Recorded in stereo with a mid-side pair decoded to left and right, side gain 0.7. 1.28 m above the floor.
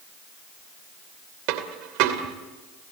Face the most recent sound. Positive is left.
turn(degrees=-65)